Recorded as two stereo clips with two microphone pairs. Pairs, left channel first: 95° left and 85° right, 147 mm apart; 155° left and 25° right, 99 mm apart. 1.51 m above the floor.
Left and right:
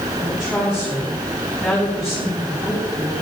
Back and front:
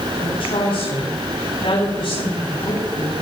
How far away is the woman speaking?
About 9 m.